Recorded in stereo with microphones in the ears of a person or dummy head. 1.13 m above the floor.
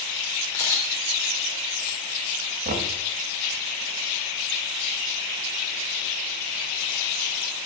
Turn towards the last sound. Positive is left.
turn(degrees=-45)  # may be behind; listen again after turning